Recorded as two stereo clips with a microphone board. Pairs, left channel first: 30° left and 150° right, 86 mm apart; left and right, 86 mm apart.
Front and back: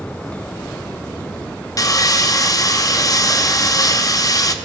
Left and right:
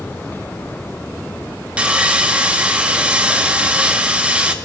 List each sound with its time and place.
1.8 s sawing: 15° right, 0.6 m